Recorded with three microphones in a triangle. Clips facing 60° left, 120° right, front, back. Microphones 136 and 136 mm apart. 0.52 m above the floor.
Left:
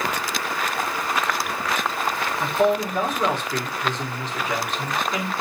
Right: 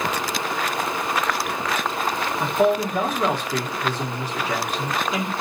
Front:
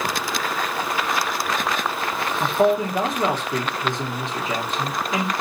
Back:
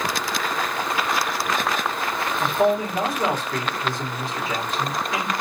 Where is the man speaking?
50° right, 0.9 m.